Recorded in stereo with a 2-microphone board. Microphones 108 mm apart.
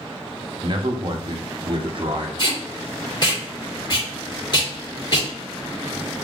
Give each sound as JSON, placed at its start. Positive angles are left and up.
{"t": 0.6, "sound": "a man speaking", "side_deg": -50, "distance_m": 0.8}
{"t": 2.4, "sound": "tape being pulled", "side_deg": 40, "distance_m": 1.8}